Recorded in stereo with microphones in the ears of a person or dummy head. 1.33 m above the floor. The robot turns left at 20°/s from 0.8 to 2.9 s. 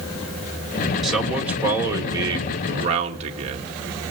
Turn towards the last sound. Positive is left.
turn(degrees=-35)